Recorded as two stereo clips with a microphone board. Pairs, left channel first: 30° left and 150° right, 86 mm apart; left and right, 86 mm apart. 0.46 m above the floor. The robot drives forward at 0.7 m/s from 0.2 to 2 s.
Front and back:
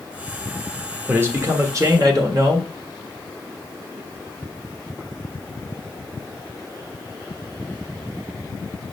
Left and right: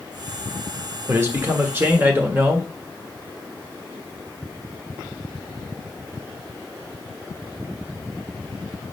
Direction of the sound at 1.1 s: 115° right.